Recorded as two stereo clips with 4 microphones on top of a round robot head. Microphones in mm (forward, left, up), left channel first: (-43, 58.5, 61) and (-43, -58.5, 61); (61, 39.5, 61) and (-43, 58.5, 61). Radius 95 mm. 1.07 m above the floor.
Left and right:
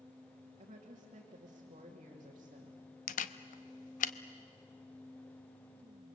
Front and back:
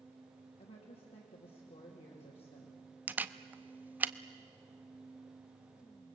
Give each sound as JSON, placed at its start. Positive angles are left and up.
{"t": 0.6, "sound": "a woman speaking", "azimuth_deg": -40, "distance_m": 2.5}
{"t": 3.1, "sound": "a camera shutter", "azimuth_deg": 95, "distance_m": 0.7}